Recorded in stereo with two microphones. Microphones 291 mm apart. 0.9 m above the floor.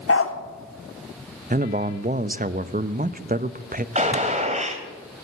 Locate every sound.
0.1 s a dog barking: 50° left (ahead or behind), 1.0 m
1.5 s a man speaking: 30° right (ahead or behind), 0.6 m
4.0 s a gunshot: 25° right (ahead or behind), 1.6 m